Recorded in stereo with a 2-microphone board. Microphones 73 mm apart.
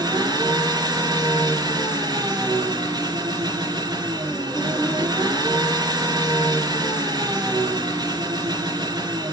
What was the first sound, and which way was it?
An engine running, 65° right (ahead or behind).